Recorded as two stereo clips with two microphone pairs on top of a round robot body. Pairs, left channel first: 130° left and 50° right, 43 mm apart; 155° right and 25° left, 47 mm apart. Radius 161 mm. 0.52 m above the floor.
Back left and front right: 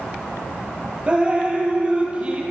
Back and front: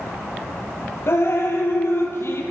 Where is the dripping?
115° right, 3.5 m.